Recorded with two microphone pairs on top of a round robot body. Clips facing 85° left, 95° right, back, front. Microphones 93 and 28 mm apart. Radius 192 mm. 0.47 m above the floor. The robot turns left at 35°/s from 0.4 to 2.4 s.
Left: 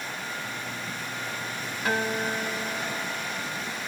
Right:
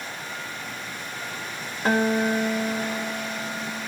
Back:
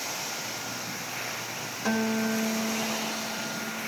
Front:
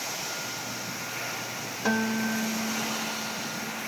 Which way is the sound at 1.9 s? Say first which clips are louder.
Right 6 dB, even; 75° right.